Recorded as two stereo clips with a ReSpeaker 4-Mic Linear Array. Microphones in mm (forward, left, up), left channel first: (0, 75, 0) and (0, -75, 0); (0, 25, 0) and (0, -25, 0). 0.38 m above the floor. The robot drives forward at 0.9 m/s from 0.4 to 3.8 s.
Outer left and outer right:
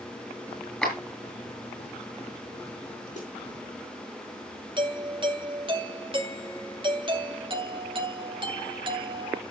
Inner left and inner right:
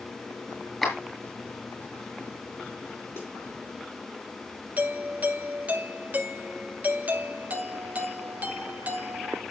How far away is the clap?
About 7 m.